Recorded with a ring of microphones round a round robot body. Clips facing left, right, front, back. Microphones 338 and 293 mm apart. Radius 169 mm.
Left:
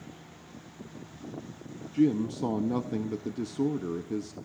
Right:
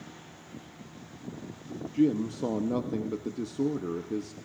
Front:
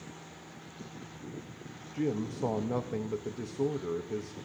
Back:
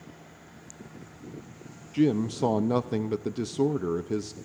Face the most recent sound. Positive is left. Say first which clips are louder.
# even, back 8 dB
turn(degrees=170)